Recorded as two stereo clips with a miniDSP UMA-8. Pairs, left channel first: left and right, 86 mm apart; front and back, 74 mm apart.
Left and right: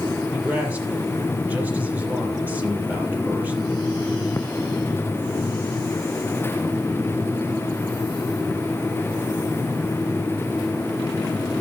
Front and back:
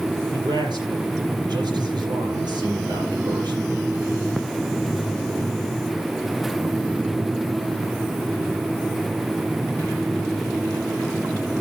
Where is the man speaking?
160° right, 6.5 m.